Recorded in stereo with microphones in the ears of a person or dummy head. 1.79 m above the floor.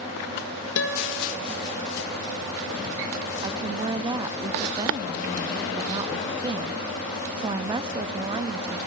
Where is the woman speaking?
25° right (ahead or behind), 0.7 m.